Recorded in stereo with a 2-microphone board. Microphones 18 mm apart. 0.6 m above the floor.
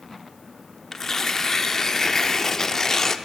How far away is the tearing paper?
About 0.6 m.